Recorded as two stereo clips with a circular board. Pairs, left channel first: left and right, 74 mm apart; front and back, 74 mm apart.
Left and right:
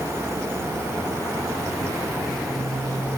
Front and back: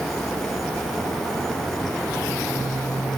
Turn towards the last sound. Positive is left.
No sound to turn to.